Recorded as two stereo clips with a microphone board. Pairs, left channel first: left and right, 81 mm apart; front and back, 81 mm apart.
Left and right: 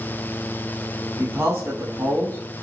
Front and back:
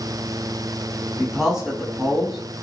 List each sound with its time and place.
1.2 s a man speaking: 105° right, 1.1 m